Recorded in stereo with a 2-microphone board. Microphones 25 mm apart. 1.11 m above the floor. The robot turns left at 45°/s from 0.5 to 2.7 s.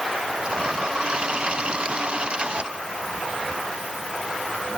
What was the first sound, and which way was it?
Only background noise.